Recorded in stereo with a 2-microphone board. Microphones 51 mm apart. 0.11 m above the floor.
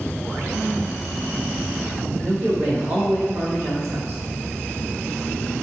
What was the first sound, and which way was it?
A man speaking, 30° right (ahead or behind).